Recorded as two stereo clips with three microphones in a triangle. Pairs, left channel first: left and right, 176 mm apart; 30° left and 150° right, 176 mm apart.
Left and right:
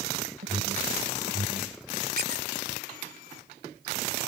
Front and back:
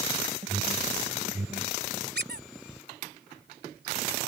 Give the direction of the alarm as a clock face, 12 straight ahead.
3 o'clock.